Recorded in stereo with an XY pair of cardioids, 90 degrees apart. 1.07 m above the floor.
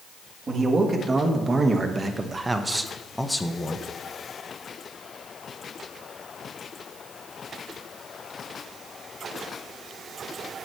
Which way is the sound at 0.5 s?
45° right.